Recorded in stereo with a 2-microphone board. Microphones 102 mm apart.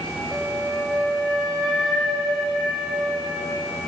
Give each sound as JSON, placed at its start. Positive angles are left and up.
{"t": 0.3, "sound": "a flute", "side_deg": 0, "distance_m": 3.0}